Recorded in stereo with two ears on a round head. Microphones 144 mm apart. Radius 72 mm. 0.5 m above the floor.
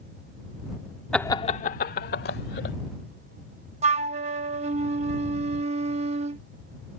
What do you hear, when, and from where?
1.1 s laughter: 5° left (ahead or behind); by 2.8 s 70° left (ahead or behind)
3.8 s a flute: 40° right (ahead or behind)